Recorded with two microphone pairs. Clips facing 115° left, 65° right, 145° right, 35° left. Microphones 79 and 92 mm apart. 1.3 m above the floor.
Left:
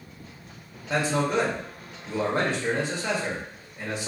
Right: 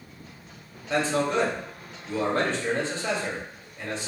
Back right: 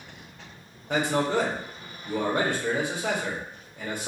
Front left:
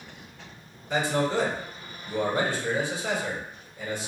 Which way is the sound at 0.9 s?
170° right.